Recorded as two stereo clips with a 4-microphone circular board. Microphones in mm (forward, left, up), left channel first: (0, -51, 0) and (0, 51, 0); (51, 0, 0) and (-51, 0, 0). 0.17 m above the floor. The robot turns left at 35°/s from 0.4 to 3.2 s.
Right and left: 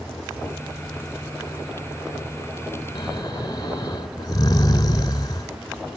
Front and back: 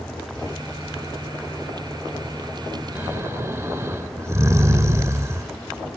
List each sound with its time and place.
3.0 s snoring: 125° right, 1.9 m; by 5.5 s 130° right, 1.9 m